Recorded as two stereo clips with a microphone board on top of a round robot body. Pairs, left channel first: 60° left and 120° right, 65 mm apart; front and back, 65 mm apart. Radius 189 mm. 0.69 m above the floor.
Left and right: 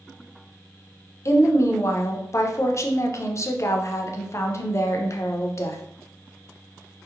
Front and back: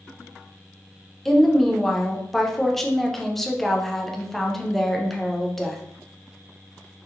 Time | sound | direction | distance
1.2 | a woman speaking | 85° left | 0.6 m